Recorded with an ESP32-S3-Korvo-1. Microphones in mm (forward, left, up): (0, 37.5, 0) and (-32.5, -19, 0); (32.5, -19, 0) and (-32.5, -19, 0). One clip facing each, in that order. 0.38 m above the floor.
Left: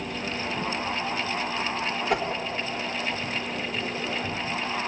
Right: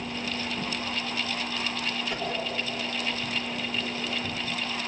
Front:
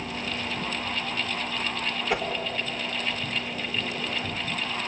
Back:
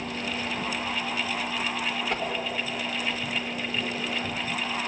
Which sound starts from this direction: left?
A whoosh, at 2.1 s.